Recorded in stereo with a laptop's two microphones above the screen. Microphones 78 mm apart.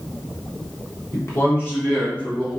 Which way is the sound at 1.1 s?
40° left (ahead or behind).